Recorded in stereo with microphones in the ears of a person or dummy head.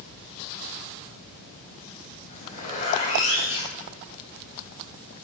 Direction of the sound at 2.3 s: 40° left (ahead or behind).